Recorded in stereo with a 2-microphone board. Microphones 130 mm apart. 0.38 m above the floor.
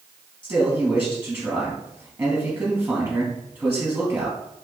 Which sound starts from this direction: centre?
A man speaking, at 0.4 s.